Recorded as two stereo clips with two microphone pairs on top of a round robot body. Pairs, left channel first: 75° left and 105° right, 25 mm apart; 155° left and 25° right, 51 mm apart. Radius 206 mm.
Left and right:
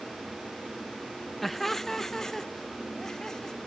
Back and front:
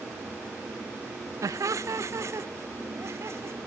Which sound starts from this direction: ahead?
Laughter, at 1.4 s.